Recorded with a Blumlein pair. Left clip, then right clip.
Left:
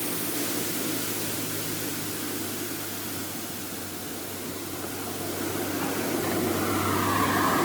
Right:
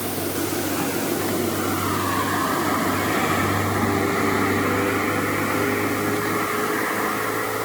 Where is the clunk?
No clunk in this recording.